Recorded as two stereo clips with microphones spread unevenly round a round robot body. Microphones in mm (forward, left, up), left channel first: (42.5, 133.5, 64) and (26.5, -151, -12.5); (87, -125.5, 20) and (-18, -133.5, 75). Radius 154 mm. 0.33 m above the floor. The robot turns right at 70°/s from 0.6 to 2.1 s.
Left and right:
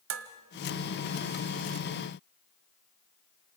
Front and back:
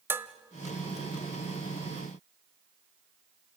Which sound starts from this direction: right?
Dishes clattering, at 0.1 s.